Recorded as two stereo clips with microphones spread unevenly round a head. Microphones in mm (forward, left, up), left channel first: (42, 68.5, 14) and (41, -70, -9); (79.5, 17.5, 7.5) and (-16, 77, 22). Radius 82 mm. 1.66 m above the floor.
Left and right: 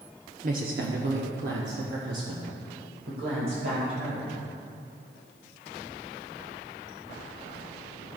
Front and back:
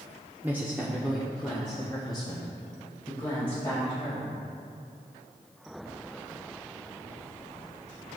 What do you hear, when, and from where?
0.4 s a woman speaking: 140° right, 0.7 m; by 4.3 s 100° right, 2.5 m